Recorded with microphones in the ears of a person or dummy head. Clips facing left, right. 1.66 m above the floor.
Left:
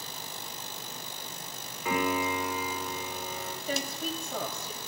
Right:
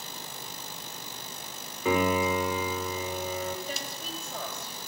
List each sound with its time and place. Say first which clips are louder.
1.9 s a piano: right 4 dB; 75° right (ahead or behind), 5 m
3.7 s a woman speaking: left 5 dB; 75° left (ahead or behind), 8 m